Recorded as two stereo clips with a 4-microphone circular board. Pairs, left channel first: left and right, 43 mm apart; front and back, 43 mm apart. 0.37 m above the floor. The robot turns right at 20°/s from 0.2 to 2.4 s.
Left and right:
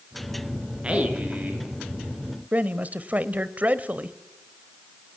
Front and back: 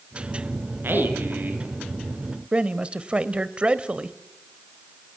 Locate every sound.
0.8 s a man speaking: 150° right, 6 m; by 1.7 s 135° right, 6 m
2.5 s a man speaking: 125° right, 1.2 m